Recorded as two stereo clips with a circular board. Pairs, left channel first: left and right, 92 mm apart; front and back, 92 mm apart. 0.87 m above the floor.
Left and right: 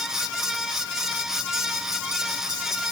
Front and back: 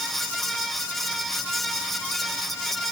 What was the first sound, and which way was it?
Only background noise.